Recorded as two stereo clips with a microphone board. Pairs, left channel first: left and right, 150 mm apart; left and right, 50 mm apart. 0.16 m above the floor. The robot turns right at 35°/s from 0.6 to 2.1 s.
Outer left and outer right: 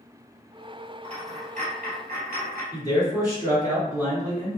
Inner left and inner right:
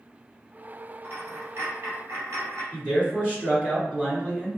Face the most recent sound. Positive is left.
turn(degrees=-20)  # may be behind; listen again after turning